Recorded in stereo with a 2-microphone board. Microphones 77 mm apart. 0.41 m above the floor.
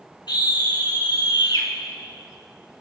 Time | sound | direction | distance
0.3 | a scream | 65° left (ahead or behind) | 4.5 m